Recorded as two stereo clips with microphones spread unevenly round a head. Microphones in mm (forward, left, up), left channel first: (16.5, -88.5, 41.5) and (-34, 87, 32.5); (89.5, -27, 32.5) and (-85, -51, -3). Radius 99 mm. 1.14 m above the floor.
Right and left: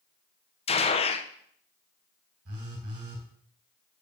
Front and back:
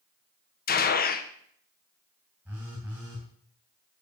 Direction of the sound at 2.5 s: 105° left.